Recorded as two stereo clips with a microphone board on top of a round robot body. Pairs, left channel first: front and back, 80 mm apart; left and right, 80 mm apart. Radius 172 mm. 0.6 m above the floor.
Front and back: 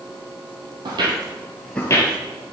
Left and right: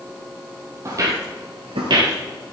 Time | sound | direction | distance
0.8 | footsteps | 145° right | 1.4 m